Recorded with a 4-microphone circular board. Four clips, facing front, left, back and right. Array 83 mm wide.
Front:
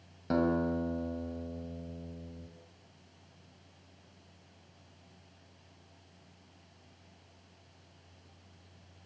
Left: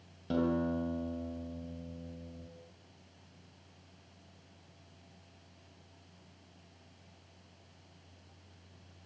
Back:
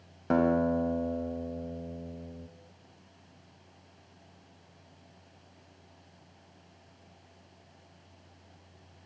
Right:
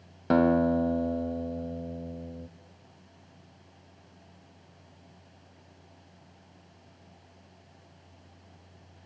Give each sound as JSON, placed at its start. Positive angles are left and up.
{"t": 0.3, "sound": "a guitar", "azimuth_deg": -110, "distance_m": 2.0}